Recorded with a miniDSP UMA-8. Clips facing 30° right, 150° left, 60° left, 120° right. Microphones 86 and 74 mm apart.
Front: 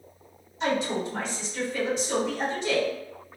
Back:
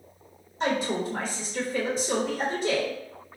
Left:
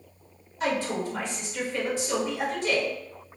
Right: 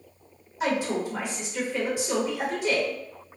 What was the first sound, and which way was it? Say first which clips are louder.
A woman speaking: even, right 1 dB; 170° left.